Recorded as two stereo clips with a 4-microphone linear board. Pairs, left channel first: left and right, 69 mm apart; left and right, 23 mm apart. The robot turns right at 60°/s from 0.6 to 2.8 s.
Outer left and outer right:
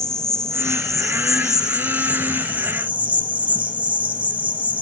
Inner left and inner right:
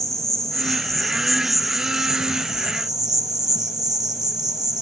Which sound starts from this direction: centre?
An insect, at 0.0 s.